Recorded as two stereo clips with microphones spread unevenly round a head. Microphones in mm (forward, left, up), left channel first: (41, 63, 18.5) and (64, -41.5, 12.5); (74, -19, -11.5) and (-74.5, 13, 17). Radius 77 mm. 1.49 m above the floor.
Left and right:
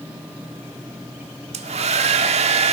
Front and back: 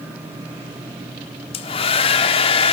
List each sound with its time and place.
1.5 s a hair dryer: 70° right, 1.6 m